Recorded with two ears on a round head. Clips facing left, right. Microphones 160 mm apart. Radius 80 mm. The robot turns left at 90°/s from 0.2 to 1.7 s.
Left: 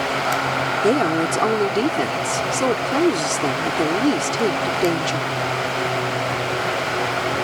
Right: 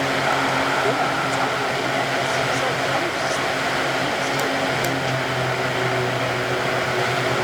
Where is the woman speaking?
140° left; by 5.3 s 65° left.